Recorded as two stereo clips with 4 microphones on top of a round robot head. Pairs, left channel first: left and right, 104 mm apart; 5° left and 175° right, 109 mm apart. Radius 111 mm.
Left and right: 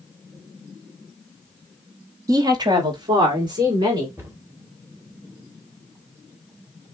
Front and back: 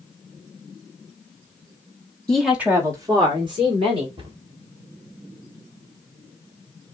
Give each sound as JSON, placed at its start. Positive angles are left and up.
{"t": 2.3, "sound": "a woman speaking", "azimuth_deg": -70, "distance_m": 1.4}
{"t": 4.2, "sound": "a cupboard door", "azimuth_deg": -155, "distance_m": 1.9}